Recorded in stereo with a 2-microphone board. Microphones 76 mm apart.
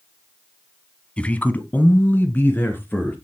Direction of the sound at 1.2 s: 15° left (ahead or behind).